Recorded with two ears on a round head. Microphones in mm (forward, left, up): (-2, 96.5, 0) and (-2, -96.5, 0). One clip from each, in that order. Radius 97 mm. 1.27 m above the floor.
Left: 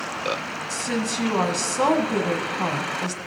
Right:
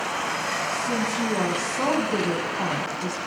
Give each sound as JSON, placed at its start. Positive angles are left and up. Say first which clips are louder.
{"t": 0.7, "sound": "a woman speaking", "louder": "right 1 dB", "side_deg": 65, "distance_m": 1.5}